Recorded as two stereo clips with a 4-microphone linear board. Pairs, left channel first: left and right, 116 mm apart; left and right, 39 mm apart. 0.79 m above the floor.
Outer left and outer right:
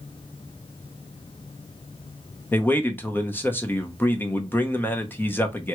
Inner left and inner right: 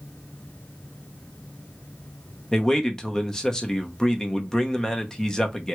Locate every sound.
2.5 s a man speaking: 15° left (ahead or behind), 0.6 m